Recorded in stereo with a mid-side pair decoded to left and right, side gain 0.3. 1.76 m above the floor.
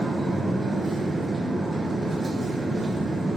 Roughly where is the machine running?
Ahead right.